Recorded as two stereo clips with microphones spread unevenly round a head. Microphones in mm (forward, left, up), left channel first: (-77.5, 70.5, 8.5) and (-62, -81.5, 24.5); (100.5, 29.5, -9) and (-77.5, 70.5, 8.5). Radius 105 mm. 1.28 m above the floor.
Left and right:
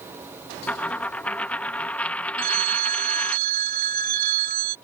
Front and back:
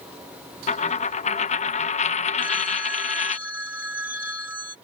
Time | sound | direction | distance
0.7 | a dropped coin | 10° left | ?
2.4 | a phone ringing | 115° right | ?